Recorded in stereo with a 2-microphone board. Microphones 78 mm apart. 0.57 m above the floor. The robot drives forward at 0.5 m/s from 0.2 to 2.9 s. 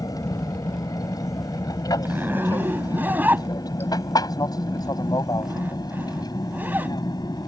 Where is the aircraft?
55° left (ahead or behind); by 7.5 s 60° left (ahead or behind).